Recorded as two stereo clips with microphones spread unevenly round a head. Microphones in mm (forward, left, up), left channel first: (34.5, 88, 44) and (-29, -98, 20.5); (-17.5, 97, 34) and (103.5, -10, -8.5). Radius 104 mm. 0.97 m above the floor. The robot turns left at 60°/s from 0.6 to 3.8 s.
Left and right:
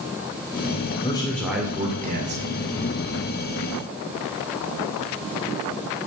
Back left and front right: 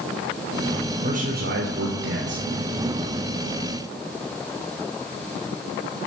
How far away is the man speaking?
About 3 m.